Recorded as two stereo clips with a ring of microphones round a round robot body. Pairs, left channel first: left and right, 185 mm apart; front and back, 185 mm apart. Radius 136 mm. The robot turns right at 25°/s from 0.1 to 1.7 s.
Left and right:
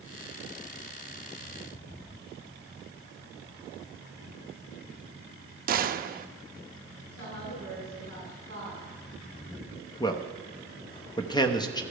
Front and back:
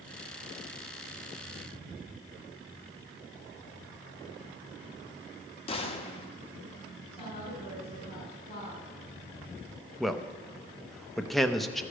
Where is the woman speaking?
60° left, 5.5 m.